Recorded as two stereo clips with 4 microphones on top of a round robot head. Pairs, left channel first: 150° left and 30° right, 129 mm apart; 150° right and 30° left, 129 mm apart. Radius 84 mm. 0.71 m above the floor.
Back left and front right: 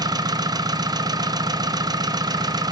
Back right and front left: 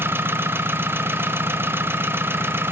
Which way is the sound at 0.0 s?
25° right.